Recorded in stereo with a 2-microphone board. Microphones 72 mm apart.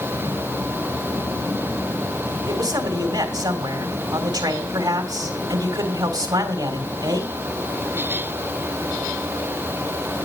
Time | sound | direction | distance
2.5 | a man speaking | 75° right (ahead or behind) | 3.5 m